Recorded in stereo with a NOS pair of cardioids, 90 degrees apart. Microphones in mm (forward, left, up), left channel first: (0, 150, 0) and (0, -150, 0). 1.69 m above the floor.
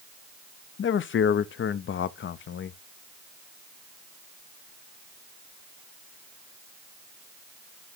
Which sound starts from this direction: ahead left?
A man speaking, at 0.8 s.